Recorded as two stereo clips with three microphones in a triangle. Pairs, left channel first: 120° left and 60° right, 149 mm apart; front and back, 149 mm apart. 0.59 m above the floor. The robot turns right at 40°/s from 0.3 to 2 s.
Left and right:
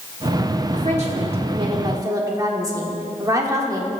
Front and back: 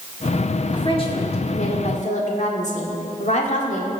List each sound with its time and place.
0.7 s a woman speaking: 50° right, 1.6 m; by 3.9 s straight ahead, 1.6 m